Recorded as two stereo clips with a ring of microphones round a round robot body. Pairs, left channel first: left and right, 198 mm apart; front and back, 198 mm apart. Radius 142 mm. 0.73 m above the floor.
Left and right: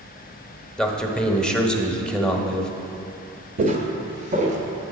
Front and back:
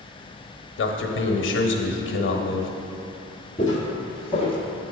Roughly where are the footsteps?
Ahead right.